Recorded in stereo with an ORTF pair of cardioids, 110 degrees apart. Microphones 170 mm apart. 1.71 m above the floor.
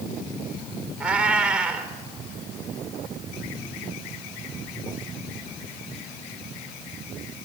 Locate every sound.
1.0 s a cat meowing: 10° right, 3.5 m